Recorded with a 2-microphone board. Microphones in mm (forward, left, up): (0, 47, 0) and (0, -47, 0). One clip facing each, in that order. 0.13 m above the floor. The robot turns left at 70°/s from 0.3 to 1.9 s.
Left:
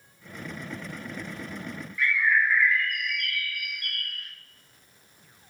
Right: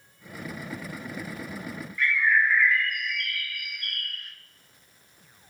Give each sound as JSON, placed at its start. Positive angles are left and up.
{"t": 2.0, "sound": "a bird", "side_deg": 0, "distance_m": 1.0}